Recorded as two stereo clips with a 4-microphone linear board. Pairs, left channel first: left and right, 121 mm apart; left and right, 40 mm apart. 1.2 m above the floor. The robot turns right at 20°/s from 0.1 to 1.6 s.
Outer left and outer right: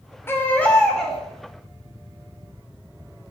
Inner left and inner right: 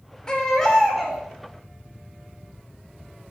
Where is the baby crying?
20° left (ahead or behind), 2.5 m; by 1.2 s centre (ahead or behind), 2.5 m.